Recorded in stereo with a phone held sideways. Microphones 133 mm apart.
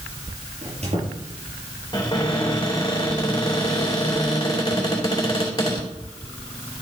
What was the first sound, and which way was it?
A squeak, 55° right (ahead or behind).